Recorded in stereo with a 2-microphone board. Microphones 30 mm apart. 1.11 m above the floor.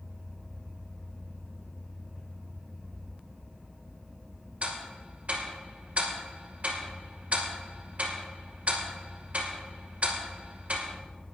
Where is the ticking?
50° right (ahead or behind), 2 m.